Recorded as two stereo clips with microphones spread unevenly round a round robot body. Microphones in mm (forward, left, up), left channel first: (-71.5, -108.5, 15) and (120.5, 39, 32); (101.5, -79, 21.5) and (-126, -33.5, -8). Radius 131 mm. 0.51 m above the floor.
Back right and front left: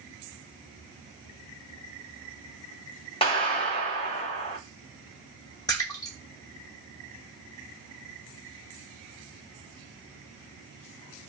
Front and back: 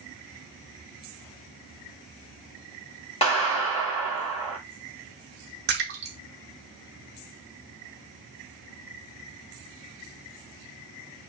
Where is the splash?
150° left, 0.8 m.